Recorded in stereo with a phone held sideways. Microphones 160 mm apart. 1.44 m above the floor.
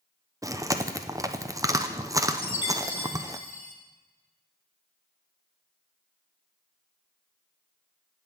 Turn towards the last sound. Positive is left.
turn(degrees=-45)  # may be behind; listen again after turning